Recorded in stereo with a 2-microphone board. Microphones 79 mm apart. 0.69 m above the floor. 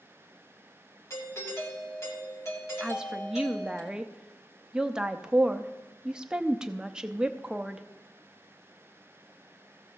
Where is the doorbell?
40° left (ahead or behind), 2.5 m.